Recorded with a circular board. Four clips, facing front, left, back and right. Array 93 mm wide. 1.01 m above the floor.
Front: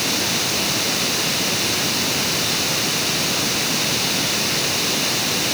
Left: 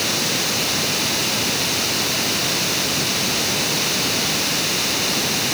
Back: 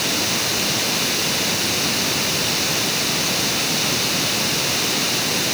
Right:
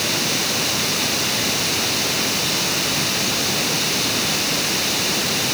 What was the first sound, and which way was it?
Only background noise.